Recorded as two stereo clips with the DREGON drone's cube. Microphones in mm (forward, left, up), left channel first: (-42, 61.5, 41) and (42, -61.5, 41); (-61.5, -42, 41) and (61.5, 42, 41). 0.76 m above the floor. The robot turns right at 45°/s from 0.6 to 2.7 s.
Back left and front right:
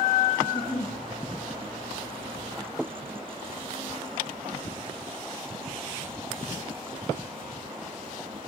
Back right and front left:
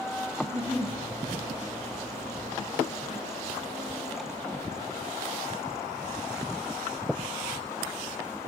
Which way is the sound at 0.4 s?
80° left.